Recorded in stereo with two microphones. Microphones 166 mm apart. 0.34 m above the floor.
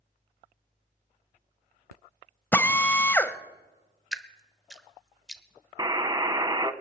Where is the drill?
10° left (ahead or behind), 0.7 m.